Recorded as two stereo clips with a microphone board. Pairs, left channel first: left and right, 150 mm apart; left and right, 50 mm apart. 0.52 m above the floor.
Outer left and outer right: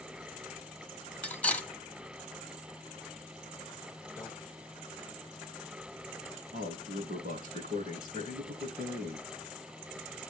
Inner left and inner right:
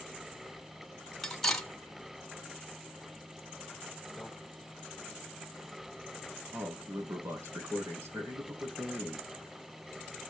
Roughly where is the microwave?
Centre.